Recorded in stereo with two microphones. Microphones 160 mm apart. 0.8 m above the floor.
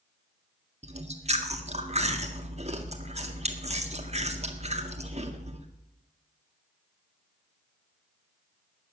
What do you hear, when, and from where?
0.8 s chewing: 40° right (ahead or behind), 1.6 m